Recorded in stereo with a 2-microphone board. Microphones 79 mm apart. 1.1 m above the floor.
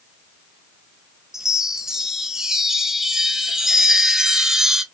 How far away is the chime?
About 0.7 m.